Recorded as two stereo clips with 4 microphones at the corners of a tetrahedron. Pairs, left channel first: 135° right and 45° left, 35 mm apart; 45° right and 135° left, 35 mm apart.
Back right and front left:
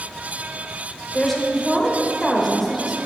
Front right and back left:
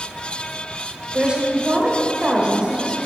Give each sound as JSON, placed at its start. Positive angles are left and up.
{"t": 1.1, "sound": "a woman speaking", "azimuth_deg": 145, "distance_m": 1.0}